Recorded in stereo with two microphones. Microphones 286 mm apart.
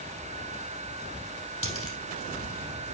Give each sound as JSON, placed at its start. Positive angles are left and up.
{"t": 1.6, "sound": "a dropped coin", "side_deg": 45, "distance_m": 3.5}